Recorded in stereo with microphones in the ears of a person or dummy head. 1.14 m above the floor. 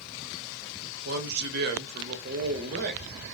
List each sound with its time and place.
0.8 s a man speaking: 50° right (ahead or behind), 0.7 m